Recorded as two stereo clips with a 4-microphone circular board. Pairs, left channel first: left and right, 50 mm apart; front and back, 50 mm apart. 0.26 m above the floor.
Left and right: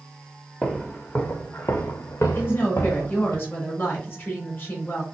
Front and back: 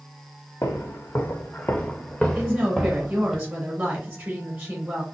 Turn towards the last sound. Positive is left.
turn(degrees=130)